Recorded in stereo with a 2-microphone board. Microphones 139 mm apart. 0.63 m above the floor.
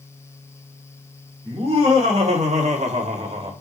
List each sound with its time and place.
1.4 s laughter: 45° right (ahead or behind), 2.0 m